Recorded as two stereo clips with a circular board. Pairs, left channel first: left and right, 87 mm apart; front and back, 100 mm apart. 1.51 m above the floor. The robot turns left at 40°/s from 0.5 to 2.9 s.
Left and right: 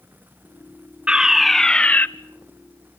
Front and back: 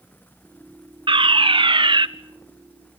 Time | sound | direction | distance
1.1 | a fire alarm | 165° right | 0.9 m